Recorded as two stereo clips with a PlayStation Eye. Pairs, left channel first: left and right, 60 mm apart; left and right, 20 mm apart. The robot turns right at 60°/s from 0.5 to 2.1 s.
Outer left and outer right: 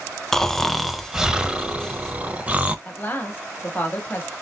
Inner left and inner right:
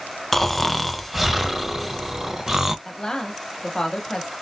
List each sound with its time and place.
0.3 s snoring: 5° left (ahead or behind), 0.5 m; by 2.8 s 25° right (ahead or behind), 0.5 m
2.9 s a woman speaking: 35° left (ahead or behind), 1.4 m